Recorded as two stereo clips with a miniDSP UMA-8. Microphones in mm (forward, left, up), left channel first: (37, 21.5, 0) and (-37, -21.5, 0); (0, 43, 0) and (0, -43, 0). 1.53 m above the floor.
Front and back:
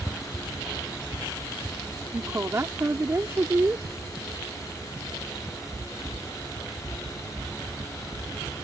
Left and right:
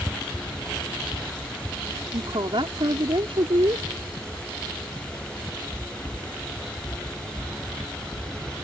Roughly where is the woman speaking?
Right.